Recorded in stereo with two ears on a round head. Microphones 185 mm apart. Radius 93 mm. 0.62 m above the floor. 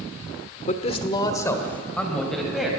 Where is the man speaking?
35° left (ahead or behind), 1.3 m; by 2.7 s centre (ahead or behind), 3 m.